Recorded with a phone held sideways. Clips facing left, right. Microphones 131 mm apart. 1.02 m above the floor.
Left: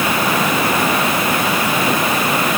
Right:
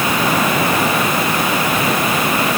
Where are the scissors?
No scissors in this recording.